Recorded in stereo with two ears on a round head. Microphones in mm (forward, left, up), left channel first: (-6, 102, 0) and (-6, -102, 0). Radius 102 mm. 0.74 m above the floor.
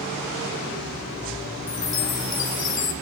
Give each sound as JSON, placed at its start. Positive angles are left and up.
{"t": 1.7, "sound": "a chime", "side_deg": 35, "distance_m": 2.5}